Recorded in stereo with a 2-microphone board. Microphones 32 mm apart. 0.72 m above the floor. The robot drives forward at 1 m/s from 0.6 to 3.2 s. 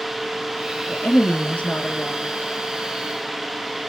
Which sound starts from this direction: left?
A woman speaking, at 0.9 s.